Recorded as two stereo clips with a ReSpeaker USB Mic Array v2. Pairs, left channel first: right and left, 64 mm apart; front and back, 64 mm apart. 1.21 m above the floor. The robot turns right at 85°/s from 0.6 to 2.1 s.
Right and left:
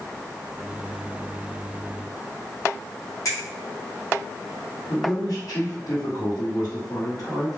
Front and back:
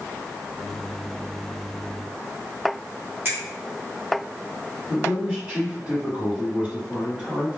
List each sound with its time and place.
3.2 s a finger snap: 125° right, 1.1 m
4.9 s a man speaking: 115° right, 1.0 m